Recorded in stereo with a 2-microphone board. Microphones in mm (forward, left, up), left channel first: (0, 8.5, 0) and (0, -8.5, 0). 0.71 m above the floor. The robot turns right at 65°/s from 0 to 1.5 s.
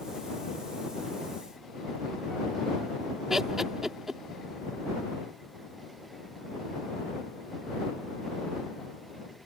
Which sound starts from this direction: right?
Laughter, at 3.3 s.